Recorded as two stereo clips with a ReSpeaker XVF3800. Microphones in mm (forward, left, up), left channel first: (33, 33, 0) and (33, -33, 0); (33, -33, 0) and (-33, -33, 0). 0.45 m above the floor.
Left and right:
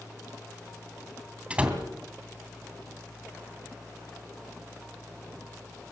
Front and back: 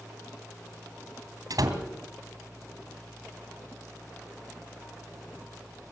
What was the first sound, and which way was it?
A door slam, 160° right.